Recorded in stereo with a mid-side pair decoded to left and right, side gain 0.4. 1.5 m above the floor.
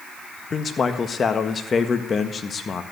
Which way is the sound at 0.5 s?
45° left.